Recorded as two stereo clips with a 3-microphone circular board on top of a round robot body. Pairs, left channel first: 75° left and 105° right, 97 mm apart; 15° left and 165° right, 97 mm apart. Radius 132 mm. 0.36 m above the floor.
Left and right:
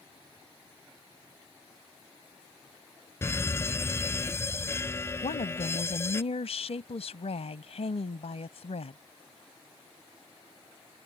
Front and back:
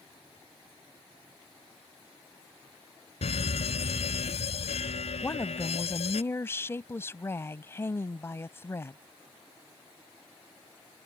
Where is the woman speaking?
80° left.